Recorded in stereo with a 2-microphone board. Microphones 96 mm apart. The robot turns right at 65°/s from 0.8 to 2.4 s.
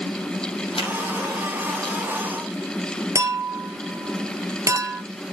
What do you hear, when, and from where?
0.8 s a finger snap: 70° left (ahead or behind), 4 m; by 0.9 s 65° left (ahead or behind), 4 m
3.1 s a clink: 35° right (ahead or behind), 1.9 m